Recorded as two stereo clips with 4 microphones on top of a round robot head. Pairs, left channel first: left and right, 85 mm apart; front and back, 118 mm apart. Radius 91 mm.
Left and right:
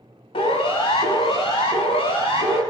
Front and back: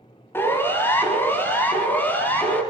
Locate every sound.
0.3 s a siren: 70° left, 5.5 m; by 2.6 s 75° left, 7 m